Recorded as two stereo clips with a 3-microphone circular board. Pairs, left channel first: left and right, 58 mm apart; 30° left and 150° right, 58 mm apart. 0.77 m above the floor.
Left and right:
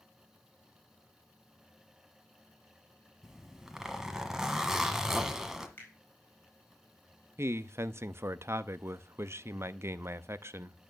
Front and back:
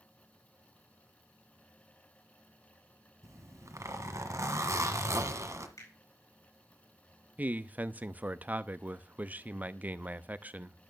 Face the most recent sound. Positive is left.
turn(degrees=-95)